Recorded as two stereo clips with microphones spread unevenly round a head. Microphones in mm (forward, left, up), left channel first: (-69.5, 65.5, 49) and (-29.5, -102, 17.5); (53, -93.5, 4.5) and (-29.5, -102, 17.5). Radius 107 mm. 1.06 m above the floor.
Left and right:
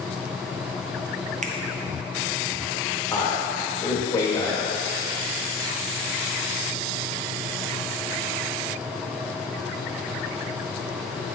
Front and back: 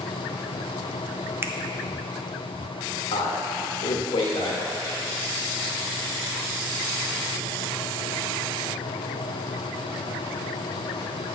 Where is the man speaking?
25° left, 1.1 m.